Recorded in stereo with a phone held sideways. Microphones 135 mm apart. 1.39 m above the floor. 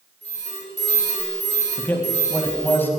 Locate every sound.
0.2 s an alarm: 55° left (ahead or behind), 6 m
1.8 s a man speaking: 15° left (ahead or behind), 1.7 m